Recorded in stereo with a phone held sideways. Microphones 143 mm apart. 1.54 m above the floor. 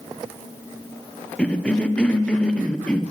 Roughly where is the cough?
Centre.